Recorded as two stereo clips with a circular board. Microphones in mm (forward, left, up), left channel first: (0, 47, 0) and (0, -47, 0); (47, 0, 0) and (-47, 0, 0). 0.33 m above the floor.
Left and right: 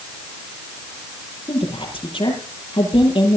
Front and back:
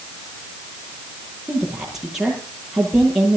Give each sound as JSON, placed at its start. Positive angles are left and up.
{"t": 1.5, "sound": "a woman speaking", "azimuth_deg": 95, "distance_m": 9.5}